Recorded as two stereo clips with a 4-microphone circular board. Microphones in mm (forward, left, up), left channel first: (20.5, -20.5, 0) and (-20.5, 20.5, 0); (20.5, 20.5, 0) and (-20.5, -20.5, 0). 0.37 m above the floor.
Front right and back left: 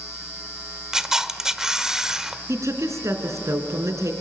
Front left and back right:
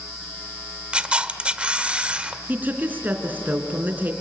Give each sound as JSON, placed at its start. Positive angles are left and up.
{"t": 0.9, "sound": "a camera shutter", "azimuth_deg": -165, "distance_m": 1.0}
{"t": 2.5, "sound": "a woman speaking", "azimuth_deg": 165, "distance_m": 3.5}